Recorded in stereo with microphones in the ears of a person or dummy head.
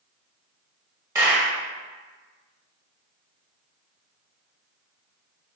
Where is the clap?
15° right (ahead or behind), 0.8 m.